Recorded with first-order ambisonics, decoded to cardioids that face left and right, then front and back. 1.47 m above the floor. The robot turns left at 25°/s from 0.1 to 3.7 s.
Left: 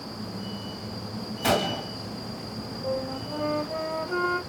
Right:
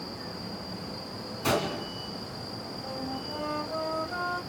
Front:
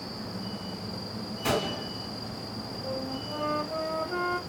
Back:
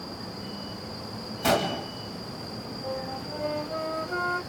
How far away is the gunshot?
About 1.8 m.